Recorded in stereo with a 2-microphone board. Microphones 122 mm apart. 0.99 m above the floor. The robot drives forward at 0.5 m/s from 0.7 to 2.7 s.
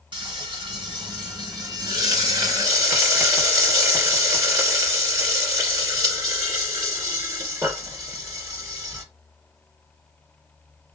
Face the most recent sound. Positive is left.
turn(degrees=-30)  # may be behind; listen again after turning